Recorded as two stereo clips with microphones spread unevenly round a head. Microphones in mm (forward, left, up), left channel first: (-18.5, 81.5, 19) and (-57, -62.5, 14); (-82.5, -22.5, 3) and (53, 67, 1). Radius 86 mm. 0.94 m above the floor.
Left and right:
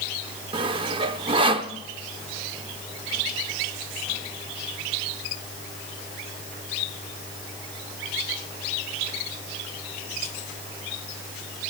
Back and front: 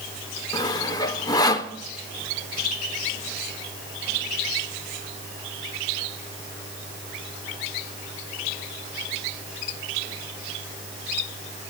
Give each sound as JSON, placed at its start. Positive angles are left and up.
{"t": 0.5, "sound": "sawing", "azimuth_deg": -105, "distance_m": 0.6}